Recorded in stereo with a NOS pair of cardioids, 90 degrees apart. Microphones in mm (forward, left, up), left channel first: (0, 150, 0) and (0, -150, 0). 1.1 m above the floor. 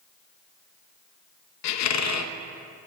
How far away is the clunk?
No clunk in this recording.